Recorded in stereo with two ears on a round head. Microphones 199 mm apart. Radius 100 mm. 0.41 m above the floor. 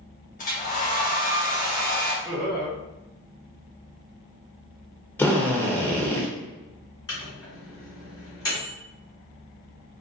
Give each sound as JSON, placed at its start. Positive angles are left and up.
{"t": 0.4, "sound": "a hair dryer", "side_deg": 35, "distance_m": 0.9}
{"t": 2.2, "sound": "laughter", "side_deg": -15, "distance_m": 0.9}
{"t": 5.2, "sound": "a drill", "side_deg": 10, "distance_m": 0.6}
{"t": 7.1, "sound": "a microwave", "side_deg": 15, "distance_m": 1.9}